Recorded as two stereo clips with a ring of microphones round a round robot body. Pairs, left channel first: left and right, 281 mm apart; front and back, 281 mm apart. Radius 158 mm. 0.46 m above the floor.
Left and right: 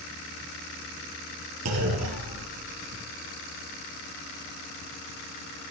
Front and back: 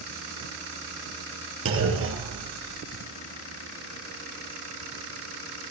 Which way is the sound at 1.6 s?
135° right.